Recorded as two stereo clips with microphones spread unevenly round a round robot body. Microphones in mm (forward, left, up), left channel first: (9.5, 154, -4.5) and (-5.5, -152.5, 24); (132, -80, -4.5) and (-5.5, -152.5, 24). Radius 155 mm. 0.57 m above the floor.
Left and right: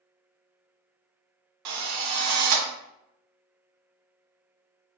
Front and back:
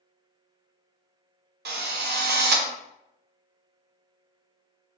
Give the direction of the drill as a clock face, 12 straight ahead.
4 o'clock.